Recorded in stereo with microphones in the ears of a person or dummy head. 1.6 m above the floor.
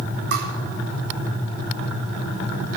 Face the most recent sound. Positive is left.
turn(degrees=-60)  # may be behind; listen again after turning